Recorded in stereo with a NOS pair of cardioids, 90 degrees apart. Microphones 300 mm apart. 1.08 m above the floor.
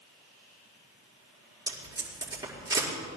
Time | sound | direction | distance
1.7 | tape being pulled | 15° right | 5.5 m